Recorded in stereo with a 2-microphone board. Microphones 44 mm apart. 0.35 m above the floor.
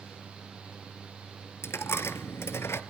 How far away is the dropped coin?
About 1.0 m.